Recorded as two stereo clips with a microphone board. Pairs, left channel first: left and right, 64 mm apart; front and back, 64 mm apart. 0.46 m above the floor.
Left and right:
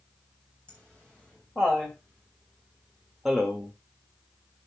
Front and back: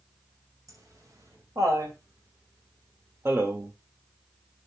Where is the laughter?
160° left, 3 m; by 3.7 s 160° right, 1.3 m.